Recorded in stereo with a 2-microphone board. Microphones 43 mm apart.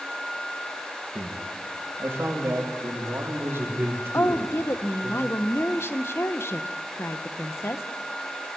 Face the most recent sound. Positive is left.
turn(degrees=85)